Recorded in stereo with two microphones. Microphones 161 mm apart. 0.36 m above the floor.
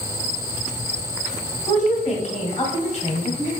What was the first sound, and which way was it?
A woman speaking, 40° left (ahead or behind).